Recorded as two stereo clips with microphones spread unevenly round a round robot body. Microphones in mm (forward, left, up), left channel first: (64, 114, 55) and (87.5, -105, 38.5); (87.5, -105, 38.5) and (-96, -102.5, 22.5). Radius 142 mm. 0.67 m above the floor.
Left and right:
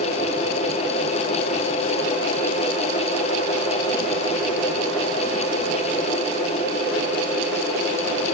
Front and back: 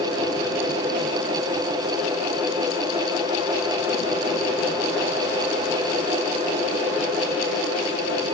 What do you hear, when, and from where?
Only background noise.